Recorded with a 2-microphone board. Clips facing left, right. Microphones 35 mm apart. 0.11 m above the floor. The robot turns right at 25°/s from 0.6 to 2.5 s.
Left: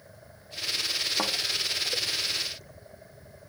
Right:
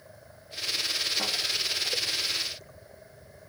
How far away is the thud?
About 2.5 m.